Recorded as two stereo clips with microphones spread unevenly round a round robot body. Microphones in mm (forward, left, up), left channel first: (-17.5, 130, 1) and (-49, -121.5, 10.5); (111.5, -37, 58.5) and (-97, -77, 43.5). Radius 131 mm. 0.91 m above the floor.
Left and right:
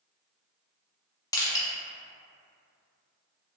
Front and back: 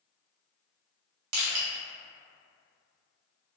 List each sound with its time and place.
1.3 s crushing: 160° left, 0.7 m